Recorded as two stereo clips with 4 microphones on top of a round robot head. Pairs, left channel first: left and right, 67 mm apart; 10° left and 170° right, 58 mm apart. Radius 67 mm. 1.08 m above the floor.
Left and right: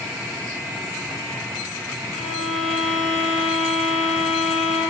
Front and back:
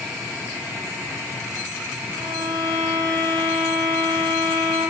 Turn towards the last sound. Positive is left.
turn(degrees=175)